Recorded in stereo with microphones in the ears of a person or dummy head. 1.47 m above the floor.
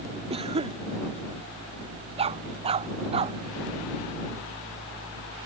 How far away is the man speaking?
No man speaking in this recording.